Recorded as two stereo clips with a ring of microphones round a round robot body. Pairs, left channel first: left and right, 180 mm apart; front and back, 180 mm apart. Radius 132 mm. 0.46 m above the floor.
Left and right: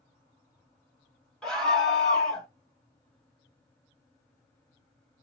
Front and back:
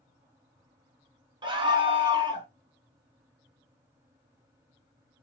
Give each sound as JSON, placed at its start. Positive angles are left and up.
{"t": 1.4, "sound": "a scream", "azimuth_deg": 170, "distance_m": 1.0}